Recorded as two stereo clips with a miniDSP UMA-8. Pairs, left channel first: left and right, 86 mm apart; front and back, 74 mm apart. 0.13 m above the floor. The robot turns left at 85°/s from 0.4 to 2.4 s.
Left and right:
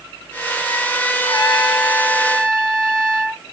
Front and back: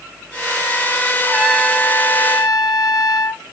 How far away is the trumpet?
About 0.7 m.